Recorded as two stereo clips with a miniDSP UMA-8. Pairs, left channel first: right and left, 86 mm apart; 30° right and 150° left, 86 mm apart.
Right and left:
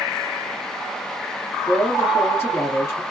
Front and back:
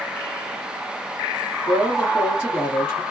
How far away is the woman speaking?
About 1.5 m.